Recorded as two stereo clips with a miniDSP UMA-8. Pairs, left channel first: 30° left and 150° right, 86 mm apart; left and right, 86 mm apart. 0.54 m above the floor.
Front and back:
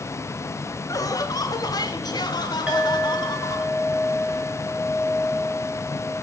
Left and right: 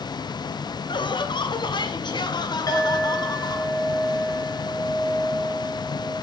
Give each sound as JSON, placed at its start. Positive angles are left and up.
{"t": 0.9, "sound": "laughter", "azimuth_deg": 75, "distance_m": 2.0}
{"t": 2.7, "sound": "a clink", "azimuth_deg": 135, "distance_m": 6.5}